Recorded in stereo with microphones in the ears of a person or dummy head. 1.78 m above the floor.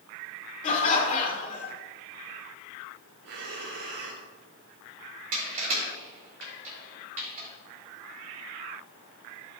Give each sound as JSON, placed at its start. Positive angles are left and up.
{"t": 0.6, "sound": "laughter", "side_deg": 35, "distance_m": 2.0}
{"t": 3.2, "sound": "breathing", "side_deg": -60, "distance_m": 2.5}
{"t": 5.3, "sound": "crushing", "side_deg": -45, "distance_m": 2.5}